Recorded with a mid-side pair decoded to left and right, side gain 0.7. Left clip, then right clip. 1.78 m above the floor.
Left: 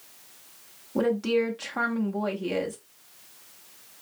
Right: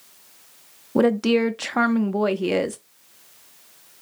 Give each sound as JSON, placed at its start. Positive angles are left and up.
{"t": 0.9, "sound": "a woman speaking", "azimuth_deg": -40, "distance_m": 0.6}